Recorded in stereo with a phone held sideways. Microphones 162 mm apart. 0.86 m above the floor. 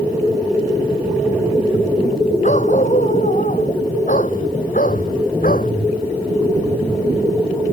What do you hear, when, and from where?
2.4 s a dog barking: 50° left (ahead or behind); by 5.7 s 60° left (ahead or behind)